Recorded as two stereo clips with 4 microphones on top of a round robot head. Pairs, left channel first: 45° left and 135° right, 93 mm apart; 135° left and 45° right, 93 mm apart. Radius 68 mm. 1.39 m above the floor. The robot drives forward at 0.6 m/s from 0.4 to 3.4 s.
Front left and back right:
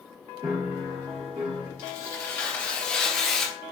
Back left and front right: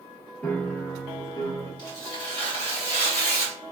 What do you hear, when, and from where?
0.4 s a piano: 170° right, 0.6 m; by 1.7 s 175° right, 1.1 m
1.8 s tearing paper: 90° left, 1.4 m; by 3.5 s 130° left, 1.7 m